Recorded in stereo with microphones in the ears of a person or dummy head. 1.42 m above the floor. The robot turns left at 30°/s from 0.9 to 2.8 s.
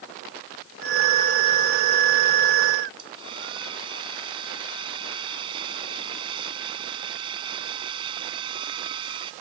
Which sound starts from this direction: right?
A hair dryer, at 3.0 s.